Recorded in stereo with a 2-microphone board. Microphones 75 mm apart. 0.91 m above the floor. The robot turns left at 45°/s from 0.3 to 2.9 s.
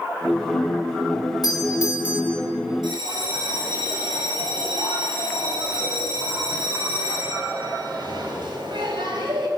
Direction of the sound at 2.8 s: 80° right.